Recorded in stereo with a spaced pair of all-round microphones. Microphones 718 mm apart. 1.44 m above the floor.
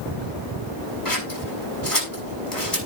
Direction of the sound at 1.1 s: 30° left (ahead or behind).